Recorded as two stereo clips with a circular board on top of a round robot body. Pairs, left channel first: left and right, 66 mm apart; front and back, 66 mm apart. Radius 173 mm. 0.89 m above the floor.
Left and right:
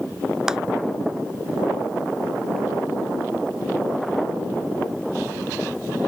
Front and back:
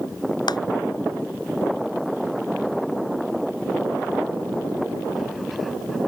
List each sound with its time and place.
0.5 s a clap: 10° right